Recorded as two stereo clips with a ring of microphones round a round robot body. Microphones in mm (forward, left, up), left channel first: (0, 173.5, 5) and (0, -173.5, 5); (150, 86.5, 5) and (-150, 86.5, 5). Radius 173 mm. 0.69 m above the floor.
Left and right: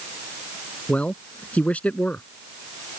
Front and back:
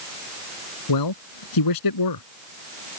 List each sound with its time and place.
0.9 s a man speaking: 5° left